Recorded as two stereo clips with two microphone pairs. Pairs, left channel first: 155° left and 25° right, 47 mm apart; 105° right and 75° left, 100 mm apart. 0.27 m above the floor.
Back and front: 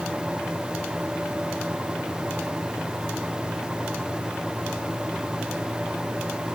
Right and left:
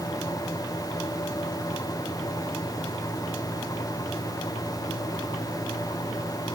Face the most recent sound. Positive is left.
No sound to turn to.